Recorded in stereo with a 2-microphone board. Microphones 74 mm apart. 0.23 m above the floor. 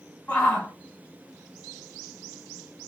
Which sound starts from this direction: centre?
A shout, at 0.3 s.